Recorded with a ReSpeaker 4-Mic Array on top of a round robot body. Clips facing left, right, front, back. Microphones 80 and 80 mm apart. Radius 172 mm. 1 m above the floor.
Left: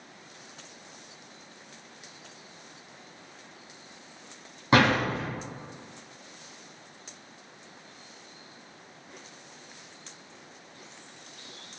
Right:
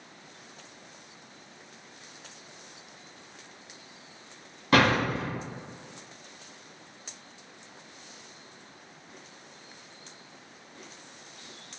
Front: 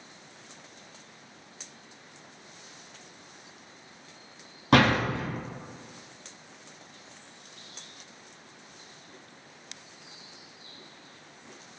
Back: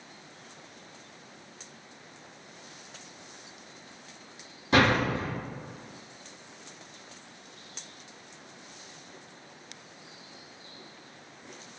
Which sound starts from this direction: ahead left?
A door slam, at 4.7 s.